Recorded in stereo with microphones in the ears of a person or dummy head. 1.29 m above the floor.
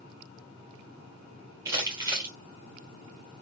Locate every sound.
1.6 s crumpling: 15° right (ahead or behind), 1.1 m